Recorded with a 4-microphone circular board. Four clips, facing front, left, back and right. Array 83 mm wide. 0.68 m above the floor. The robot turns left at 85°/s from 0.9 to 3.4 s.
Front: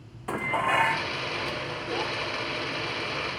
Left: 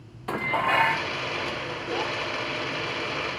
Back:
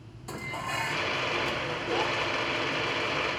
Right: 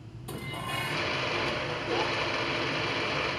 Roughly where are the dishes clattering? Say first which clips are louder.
Left 12 dB, front 9 dB; ahead left.